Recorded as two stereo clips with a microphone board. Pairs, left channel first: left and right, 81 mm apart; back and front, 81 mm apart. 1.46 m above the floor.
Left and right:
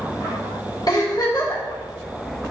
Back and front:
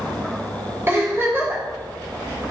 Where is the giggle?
60° left, 2.5 m.